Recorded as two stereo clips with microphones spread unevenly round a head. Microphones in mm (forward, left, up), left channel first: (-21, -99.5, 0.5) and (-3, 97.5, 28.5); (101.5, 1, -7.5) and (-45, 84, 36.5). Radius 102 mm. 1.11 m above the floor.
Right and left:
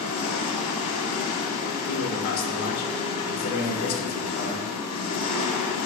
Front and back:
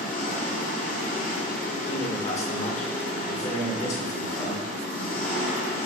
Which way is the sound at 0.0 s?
85° right.